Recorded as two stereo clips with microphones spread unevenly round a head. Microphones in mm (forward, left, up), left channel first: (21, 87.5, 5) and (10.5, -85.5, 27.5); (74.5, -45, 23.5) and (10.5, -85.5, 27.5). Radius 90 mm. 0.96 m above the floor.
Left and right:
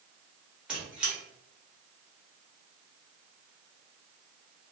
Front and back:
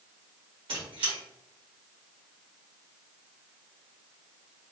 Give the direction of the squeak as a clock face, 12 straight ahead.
6 o'clock.